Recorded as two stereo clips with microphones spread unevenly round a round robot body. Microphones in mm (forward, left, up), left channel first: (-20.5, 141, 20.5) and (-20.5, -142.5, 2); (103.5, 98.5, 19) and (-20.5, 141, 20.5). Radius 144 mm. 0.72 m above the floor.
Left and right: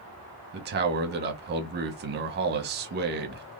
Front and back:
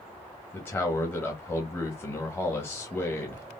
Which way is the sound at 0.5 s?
85° right.